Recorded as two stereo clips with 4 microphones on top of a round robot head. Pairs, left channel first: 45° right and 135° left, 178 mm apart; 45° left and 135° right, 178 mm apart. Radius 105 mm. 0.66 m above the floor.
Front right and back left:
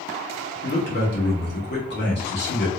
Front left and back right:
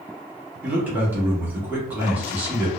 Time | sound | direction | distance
0.6 | a man speaking | 55° right | 1.5 m